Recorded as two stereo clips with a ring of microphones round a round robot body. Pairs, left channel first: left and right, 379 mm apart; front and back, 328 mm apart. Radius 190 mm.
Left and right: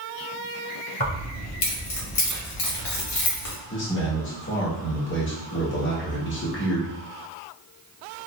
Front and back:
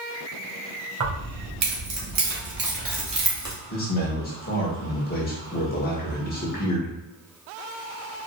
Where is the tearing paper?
No tearing paper in this recording.